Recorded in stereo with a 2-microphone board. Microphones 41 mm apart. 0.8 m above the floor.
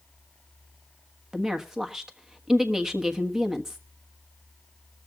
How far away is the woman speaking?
About 1.2 m.